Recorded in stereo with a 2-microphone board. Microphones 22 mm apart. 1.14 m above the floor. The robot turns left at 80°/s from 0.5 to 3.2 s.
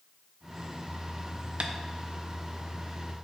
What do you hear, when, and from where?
1.6 s tapping: 55° right (ahead or behind), 0.8 m; by 1.7 s 60° right (ahead or behind), 0.8 m